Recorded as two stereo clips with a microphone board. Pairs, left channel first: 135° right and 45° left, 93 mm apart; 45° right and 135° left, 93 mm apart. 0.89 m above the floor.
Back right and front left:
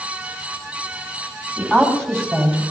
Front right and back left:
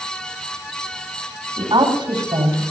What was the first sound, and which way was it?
A woman speaking, 145° left.